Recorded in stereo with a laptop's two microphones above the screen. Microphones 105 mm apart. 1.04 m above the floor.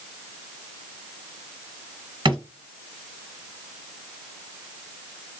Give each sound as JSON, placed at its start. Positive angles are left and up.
{"t": 2.2, "sound": "a drawer", "side_deg": -50, "distance_m": 1.1}